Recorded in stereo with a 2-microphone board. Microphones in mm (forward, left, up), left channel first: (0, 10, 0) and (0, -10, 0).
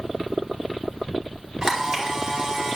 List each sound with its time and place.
1.6 s a camera shutter: 40° right (ahead or behind), 3 m